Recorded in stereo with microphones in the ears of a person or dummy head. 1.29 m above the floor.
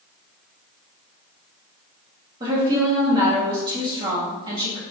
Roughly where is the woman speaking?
Right.